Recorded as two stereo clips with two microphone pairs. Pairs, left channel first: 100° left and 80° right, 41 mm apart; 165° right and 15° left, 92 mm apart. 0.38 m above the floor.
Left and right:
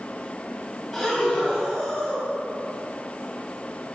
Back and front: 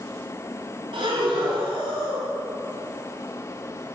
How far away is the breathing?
About 2.5 m.